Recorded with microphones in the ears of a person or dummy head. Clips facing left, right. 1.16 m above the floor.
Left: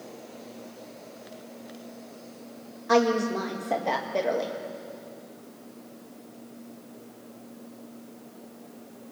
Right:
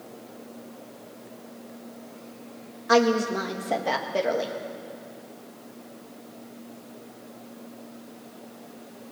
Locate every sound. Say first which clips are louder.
2.9 s a woman speaking: right 1 dB; 5° right (ahead or behind), 1.8 m